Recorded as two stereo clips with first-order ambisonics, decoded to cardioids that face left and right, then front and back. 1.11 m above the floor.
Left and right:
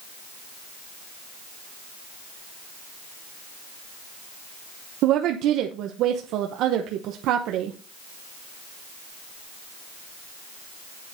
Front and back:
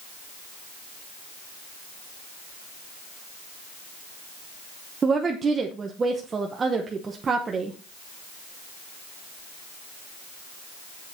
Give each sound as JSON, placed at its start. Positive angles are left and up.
{"t": 5.0, "sound": "a woman speaking", "azimuth_deg": -110, "distance_m": 0.9}